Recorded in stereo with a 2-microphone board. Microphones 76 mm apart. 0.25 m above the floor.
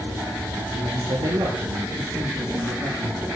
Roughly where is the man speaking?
Right.